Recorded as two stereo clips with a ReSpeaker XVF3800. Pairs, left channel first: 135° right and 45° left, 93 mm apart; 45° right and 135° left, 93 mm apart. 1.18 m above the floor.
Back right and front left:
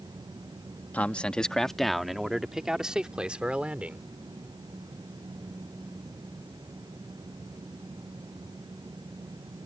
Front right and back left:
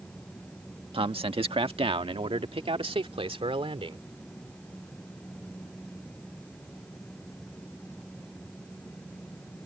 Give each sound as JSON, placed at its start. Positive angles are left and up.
{"t": 0.9, "sound": "a man speaking", "azimuth_deg": 150}